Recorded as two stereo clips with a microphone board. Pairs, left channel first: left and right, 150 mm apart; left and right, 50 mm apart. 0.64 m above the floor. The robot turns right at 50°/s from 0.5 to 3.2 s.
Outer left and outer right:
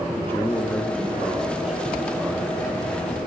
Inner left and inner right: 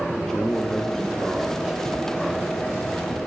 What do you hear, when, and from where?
0.1 s a man speaking: 15° left (ahead or behind), 0.7 m; by 3.1 s 20° right (ahead or behind), 0.7 m